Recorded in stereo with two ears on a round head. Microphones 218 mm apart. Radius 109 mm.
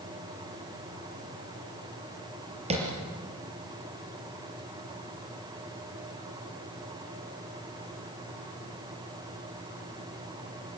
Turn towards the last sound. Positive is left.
turn(degrees=-25)  # may be behind; listen again after turning